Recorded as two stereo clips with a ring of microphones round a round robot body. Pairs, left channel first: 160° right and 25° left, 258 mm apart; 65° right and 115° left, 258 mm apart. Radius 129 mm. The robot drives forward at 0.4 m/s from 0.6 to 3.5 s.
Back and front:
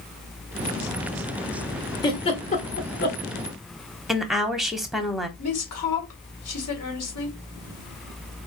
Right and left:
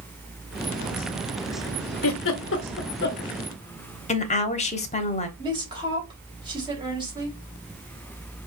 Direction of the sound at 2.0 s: 85° right.